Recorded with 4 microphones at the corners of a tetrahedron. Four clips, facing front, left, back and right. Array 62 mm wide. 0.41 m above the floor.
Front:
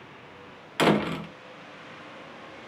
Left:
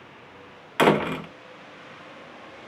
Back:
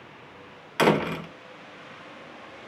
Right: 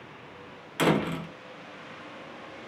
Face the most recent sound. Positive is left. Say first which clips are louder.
# left 5 dB, back 1 dB
turn(degrees=110)